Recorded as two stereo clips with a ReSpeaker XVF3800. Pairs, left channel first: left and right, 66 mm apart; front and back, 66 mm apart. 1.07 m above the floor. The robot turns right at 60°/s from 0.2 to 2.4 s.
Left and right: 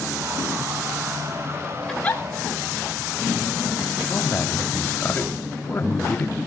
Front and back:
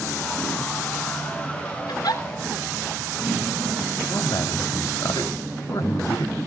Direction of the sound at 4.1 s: 30° left.